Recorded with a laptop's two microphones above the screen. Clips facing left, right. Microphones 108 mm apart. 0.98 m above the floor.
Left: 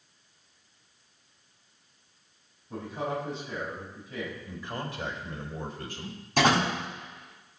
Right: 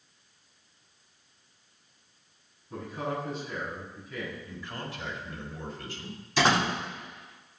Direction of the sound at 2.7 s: 30° left (ahead or behind).